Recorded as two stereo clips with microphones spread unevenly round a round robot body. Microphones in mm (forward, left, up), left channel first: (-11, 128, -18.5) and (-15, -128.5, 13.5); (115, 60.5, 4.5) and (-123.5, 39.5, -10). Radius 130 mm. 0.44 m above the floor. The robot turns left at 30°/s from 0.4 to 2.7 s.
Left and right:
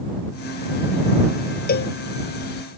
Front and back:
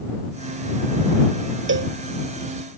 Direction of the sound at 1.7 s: 145° left.